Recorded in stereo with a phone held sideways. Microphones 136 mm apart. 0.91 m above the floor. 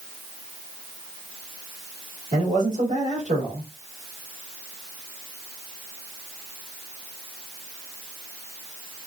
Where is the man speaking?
65° right (ahead or behind), 2 m.